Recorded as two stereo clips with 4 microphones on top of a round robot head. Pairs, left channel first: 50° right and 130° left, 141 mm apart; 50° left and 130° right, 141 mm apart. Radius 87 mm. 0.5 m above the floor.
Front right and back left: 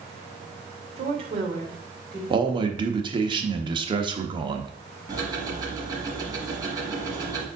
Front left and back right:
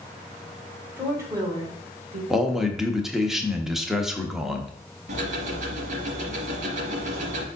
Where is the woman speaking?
155° left, 2 m; by 2.2 s 170° right, 3 m.